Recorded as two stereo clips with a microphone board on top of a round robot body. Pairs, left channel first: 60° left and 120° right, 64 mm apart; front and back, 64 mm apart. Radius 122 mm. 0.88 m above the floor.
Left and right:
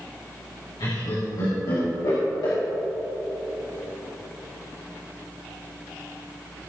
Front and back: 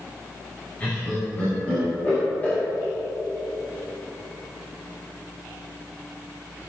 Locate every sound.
0.8 s laughter: 65° left, 4 m